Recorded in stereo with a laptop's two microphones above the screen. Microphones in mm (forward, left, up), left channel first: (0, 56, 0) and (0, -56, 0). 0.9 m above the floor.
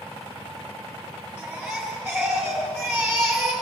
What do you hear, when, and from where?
1.4 s a baby crying: 10° left (ahead or behind), 8.5 m